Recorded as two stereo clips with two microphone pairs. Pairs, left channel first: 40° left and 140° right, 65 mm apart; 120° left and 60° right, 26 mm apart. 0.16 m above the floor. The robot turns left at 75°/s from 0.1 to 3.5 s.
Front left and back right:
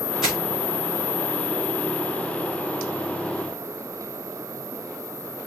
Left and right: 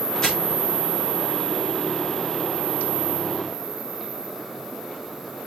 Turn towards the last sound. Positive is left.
turn(degrees=-95)